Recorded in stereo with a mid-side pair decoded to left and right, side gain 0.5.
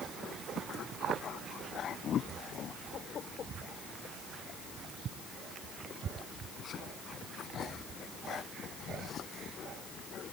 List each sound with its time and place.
Only background noise.